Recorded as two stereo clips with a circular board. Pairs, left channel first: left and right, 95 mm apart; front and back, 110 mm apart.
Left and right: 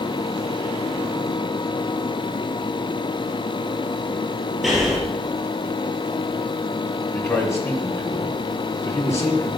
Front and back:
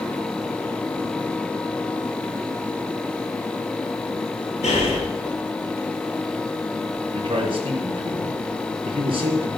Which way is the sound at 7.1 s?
150° left.